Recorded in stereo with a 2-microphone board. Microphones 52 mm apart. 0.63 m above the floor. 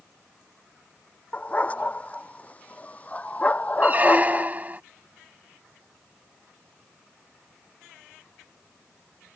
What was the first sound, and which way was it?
A dog barking, 25° left (ahead or behind).